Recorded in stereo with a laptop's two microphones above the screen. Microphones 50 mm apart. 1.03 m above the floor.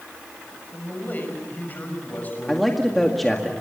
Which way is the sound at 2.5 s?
5° left (ahead or behind).